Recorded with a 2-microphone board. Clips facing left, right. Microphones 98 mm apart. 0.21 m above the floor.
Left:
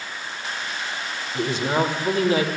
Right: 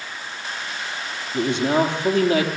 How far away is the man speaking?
About 6 m.